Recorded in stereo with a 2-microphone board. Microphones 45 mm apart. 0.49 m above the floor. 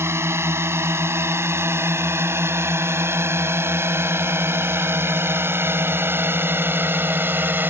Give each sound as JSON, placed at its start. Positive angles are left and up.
{"t": 0.0, "sound": "a drone", "side_deg": -70}